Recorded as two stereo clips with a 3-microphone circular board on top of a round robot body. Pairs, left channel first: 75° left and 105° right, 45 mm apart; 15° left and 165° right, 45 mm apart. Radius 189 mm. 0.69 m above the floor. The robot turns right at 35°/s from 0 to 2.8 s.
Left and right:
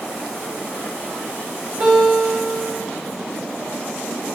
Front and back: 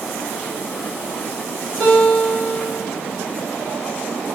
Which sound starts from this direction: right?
A guitar, at 1.8 s.